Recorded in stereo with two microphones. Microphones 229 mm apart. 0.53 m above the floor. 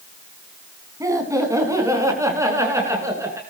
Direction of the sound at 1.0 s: 15° right (ahead or behind).